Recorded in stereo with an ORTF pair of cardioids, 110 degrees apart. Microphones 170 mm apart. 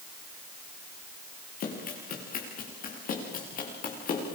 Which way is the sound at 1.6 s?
55° left.